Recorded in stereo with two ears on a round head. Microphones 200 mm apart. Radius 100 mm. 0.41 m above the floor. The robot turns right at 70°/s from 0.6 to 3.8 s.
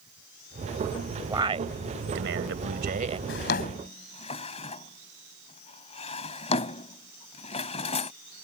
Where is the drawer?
60° left (ahead or behind); by 8.1 s 30° left (ahead or behind).